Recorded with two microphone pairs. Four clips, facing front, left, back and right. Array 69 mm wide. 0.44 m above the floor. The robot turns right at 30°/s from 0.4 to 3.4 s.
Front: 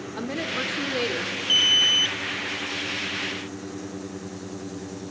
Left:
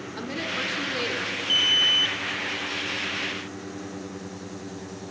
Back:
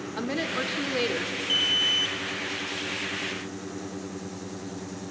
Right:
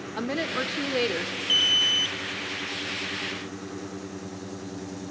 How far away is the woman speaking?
About 0.8 m.